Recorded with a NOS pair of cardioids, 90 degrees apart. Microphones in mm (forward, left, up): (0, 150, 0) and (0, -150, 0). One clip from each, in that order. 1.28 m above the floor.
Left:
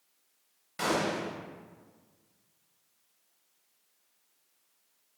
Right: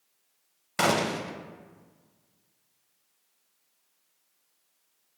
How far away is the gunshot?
About 0.5 m.